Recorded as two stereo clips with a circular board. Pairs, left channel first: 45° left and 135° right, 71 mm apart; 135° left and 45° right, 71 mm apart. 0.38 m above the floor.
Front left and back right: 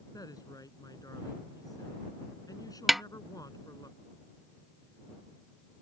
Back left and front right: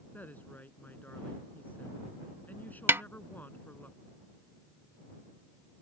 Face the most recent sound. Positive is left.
turn(degrees=-45)